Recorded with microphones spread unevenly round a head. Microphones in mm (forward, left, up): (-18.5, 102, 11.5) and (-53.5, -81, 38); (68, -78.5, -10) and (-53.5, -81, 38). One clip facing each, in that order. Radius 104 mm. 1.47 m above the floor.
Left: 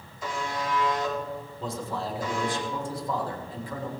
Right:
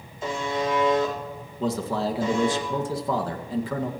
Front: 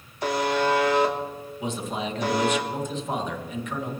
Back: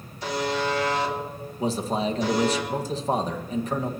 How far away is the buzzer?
About 2.5 m.